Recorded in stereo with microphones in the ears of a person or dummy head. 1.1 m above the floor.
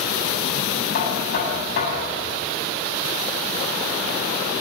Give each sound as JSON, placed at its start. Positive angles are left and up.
{"t": 0.9, "sound": "knocking", "side_deg": 55, "distance_m": 8.5}